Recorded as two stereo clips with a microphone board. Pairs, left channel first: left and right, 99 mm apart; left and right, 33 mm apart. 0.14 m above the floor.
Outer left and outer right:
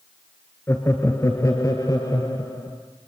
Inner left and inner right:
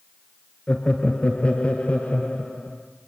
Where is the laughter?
25° left (ahead or behind), 1.9 m; by 2.8 s 40° left (ahead or behind), 3.5 m.